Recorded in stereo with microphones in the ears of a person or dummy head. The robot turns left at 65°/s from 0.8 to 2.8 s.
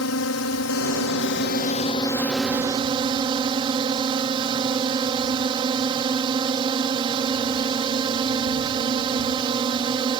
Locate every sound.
0.0 s a drone: 105° left; by 10.2 s 25° right